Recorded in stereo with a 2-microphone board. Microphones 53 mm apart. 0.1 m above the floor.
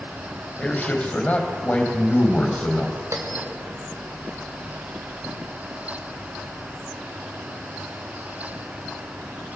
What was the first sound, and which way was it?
A man speaking, 25° left (ahead or behind).